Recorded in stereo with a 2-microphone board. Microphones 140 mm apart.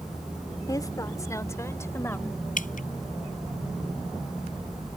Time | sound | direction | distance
0.7 | a woman speaking | 25° left (ahead or behind) | ?
2.6 | dripping | 75° left (ahead or behind) | ?